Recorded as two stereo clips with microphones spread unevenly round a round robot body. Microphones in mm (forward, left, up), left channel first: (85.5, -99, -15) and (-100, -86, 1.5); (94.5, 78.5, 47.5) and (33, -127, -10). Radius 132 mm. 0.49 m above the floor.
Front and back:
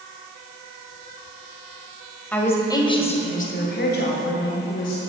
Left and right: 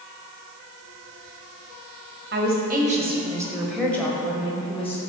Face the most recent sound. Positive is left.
turn(degrees=5)